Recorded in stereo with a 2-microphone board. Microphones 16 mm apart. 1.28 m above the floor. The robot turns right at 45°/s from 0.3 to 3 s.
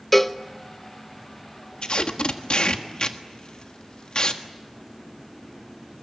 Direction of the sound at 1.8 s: 65° left (ahead or behind).